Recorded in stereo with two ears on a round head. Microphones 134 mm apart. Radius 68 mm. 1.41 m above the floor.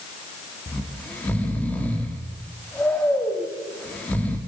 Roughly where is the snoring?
Centre.